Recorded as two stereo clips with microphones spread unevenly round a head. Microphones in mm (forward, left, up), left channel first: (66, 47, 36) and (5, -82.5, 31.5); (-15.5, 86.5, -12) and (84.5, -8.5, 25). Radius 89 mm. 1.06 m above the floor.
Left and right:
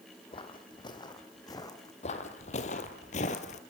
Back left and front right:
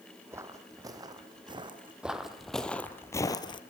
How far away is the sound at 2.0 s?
About 2 m.